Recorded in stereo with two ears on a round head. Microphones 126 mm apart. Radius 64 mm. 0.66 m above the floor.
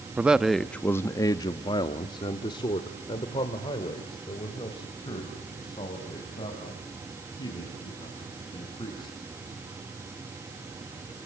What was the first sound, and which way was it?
A man speaking, 10° right (ahead or behind).